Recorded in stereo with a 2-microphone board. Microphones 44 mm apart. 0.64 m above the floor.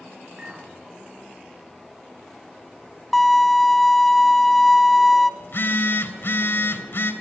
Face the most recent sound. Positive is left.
turn(degrees=55)  # may be behind; listen again after turning